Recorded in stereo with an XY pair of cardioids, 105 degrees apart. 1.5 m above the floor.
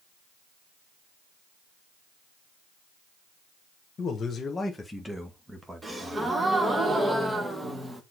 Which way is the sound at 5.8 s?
15° right.